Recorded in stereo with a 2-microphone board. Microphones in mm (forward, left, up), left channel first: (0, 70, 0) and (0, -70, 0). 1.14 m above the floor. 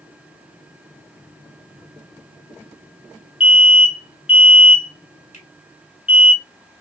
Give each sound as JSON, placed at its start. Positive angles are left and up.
{"t": 3.4, "sound": "an alarm", "side_deg": 45, "distance_m": 1.2}
{"t": 5.3, "sound": "a finger snap", "side_deg": 65, "distance_m": 1.6}